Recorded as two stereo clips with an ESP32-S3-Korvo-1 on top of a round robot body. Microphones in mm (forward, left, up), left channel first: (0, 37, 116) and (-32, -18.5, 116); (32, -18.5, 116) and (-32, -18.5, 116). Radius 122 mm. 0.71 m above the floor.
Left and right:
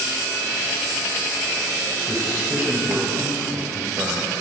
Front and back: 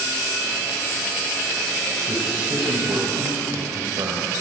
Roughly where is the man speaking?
Behind.